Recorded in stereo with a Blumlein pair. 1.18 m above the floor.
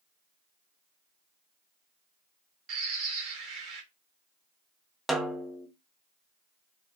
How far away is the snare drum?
About 0.5 m.